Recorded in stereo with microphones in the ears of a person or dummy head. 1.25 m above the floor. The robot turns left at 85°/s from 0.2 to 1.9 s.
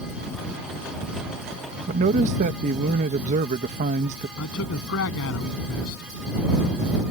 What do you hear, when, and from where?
1.9 s a man speaking: 40° right (ahead or behind)
4.4 s a man speaking: 70° left (ahead or behind)